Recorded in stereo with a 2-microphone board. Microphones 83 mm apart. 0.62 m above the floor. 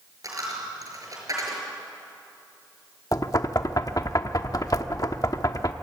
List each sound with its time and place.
0.2 s a dropped coin: 45° right (ahead or behind), 6 m
3.1 s knocking: 45° left (ahead or behind), 1.0 m